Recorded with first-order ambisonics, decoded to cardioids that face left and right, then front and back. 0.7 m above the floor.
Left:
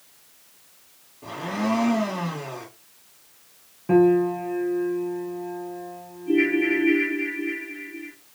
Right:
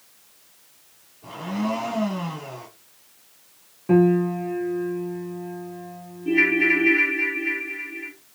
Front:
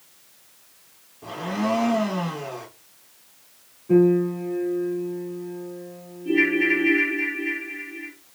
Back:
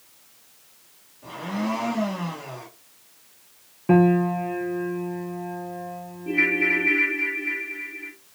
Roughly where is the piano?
Behind.